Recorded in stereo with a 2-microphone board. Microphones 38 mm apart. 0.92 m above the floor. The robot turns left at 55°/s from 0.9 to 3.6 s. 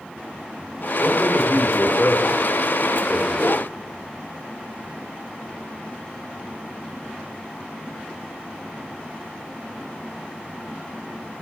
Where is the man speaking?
130° left, 2.5 m; by 3.7 s 10° right, 2.5 m.